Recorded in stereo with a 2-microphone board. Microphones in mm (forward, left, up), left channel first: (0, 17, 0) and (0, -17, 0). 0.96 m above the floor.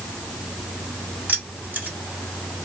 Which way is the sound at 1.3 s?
60° right (ahead or behind).